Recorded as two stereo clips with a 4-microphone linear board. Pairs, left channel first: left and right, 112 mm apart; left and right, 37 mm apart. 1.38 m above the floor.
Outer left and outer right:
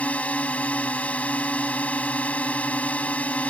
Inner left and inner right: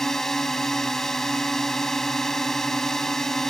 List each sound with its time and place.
0.0 s a drone: 10° left (ahead or behind)